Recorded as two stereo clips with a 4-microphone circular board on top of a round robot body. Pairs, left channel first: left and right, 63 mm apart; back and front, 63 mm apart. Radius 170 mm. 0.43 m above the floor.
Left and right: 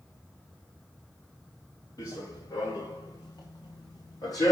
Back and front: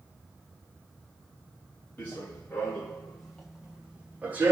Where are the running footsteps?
115° left, 3 m; by 4.5 s 60° left, 1.8 m.